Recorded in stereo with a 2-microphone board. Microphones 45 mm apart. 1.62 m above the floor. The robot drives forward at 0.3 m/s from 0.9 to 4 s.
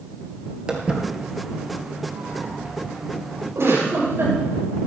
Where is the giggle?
80° right, 7.5 m.